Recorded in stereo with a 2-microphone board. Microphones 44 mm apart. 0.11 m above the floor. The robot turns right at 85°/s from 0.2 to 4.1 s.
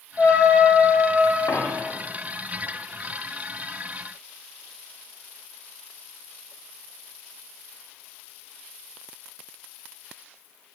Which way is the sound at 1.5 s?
75° left (ahead or behind).